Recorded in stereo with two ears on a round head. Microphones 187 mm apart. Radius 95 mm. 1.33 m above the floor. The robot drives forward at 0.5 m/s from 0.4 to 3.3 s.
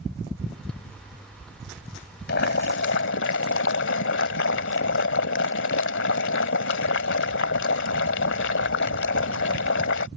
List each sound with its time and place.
2.3 s boiling: 55° left (ahead or behind); by 10.1 s 60° left (ahead or behind)